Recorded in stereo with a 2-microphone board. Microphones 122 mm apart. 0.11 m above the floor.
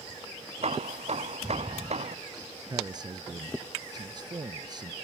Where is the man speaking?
35° right (ahead or behind).